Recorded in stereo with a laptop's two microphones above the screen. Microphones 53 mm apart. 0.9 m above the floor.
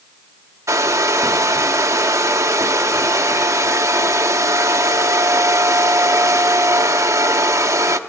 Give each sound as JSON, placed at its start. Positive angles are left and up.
{"t": 0.7, "sound": "a hair dryer", "side_deg": -80, "distance_m": 0.8}